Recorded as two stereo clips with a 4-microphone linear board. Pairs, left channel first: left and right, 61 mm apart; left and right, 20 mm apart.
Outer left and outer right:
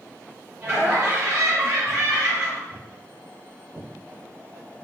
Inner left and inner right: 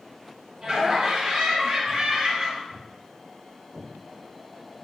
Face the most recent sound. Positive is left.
turn(degrees=-65)  # may be behind; listen again after turning